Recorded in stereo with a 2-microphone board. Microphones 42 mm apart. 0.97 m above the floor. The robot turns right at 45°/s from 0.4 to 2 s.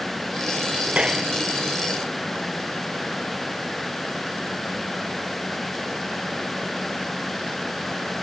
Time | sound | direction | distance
0.9 | a clap | 30° right (ahead or behind) | ?